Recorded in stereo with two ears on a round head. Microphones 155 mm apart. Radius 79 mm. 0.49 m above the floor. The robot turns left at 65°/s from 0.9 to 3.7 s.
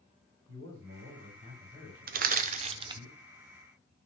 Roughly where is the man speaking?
Right.